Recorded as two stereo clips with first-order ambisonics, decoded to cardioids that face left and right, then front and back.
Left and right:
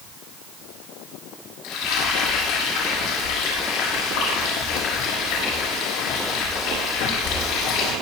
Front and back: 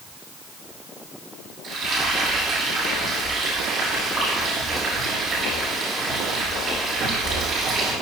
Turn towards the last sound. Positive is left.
turn(degrees=115)